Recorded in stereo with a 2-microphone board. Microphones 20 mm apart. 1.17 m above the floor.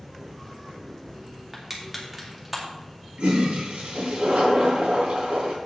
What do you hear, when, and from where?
1.5 s crushing: 10° right (ahead or behind), 2 m
3.2 s a toilet flushing: 70° right (ahead or behind), 3 m